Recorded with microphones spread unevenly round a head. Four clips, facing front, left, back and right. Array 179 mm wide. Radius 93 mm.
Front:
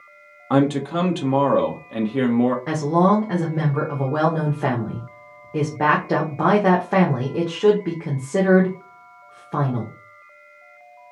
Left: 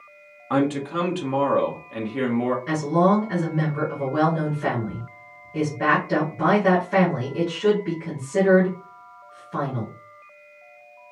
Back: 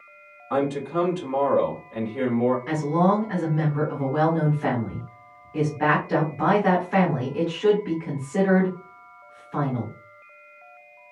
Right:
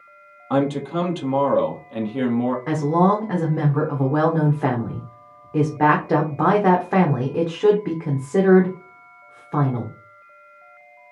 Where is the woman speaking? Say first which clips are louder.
Right 2 dB, front 3 dB; 35° right, 1.1 m.